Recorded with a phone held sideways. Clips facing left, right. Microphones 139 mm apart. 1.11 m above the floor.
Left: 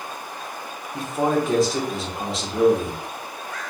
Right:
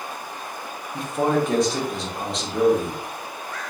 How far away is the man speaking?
About 0.8 m.